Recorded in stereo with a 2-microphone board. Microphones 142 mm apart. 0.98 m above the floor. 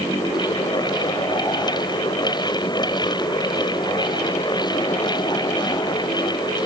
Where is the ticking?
I don't hear ticking.